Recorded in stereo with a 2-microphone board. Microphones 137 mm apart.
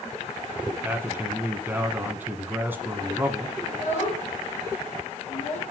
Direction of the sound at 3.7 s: 60° left (ahead or behind).